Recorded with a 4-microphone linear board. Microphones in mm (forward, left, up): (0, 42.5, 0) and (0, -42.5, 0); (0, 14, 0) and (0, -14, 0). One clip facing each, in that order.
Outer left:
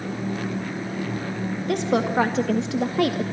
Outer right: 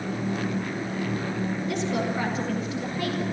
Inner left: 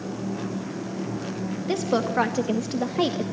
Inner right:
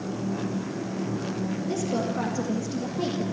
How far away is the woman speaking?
About 2.5 m.